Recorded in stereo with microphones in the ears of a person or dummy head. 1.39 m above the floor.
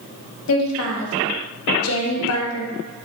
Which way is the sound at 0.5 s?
80° left.